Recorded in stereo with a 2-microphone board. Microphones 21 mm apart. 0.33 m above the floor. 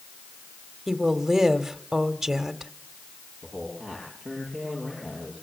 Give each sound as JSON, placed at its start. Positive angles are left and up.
{"t": 0.9, "sound": "a woman speaking", "side_deg": -10, "distance_m": 1.5}
{"t": 3.4, "sound": "a man speaking", "side_deg": 40, "distance_m": 7.5}